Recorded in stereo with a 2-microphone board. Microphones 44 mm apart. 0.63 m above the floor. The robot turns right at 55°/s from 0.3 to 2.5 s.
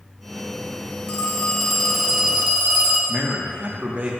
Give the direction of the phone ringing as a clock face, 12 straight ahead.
7 o'clock.